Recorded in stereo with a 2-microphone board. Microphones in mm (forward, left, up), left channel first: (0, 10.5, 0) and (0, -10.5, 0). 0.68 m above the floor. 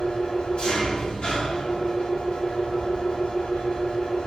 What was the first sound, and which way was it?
An engine running, 50° left (ahead or behind).